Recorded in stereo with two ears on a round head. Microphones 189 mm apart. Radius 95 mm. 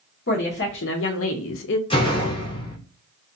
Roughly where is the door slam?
Left.